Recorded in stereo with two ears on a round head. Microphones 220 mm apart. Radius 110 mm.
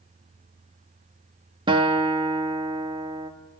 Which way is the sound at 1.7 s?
20° right (ahead or behind).